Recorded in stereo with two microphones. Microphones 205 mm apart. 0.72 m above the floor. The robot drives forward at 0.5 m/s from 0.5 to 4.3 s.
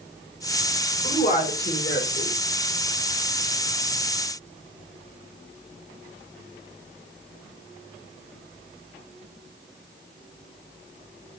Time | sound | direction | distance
1.0 | a woman speaking | 40° left (ahead or behind) | 1.8 m